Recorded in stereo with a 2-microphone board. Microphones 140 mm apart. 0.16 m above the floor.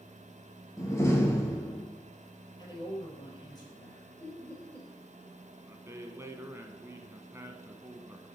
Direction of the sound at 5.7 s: 20° right (ahead or behind).